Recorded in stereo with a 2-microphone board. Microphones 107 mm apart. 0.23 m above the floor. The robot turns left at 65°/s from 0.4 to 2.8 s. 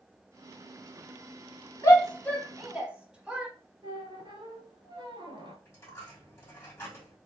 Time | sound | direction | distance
1.8 | a shout | 30° left (ahead or behind) | 1.2 m
3.8 | a squeak | 50° right (ahead or behind) | 1.0 m
5.7 | a dropped coin | 25° left (ahead or behind) | 2 m